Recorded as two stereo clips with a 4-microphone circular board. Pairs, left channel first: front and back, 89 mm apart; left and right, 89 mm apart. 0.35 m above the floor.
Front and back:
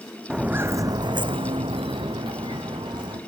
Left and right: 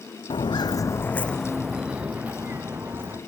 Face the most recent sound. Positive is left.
turn(degrees=-150)